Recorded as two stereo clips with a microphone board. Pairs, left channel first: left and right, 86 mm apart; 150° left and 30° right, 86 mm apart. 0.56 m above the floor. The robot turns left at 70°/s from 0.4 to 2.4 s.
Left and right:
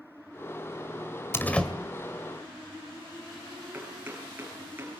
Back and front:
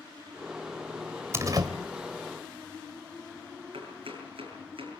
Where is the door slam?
30° left, 2 m; by 1.7 s 5° left, 2 m.